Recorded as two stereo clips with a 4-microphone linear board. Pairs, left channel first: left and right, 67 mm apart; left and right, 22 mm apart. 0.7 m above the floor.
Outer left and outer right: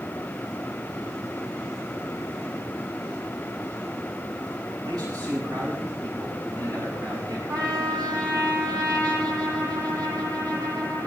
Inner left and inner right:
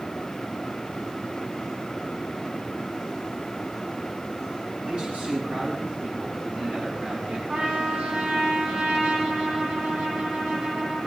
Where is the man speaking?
75° right (ahead or behind), 4.5 m; by 7.4 s 80° right, 7 m.